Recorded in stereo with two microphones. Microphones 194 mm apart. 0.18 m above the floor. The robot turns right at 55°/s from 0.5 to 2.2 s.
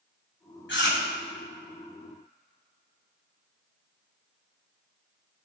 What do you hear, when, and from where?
0.7 s chewing: 75° left (ahead or behind), 3 m; by 1.0 s 60° left (ahead or behind), 3 m